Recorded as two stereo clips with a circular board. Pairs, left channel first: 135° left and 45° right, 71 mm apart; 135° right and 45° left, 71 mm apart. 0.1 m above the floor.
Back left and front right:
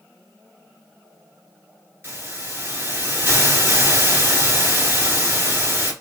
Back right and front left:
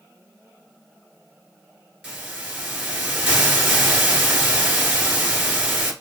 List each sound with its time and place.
2.0 s a hiss: 25° right, 1.7 m